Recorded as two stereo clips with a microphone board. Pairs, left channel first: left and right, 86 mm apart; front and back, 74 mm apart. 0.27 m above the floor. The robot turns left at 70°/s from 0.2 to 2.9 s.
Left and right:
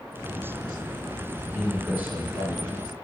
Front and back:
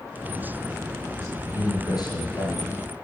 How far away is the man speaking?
About 2.5 m.